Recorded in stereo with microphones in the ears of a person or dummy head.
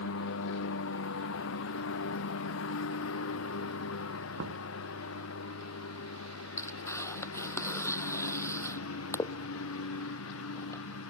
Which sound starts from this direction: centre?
Tearing paper, at 6.6 s.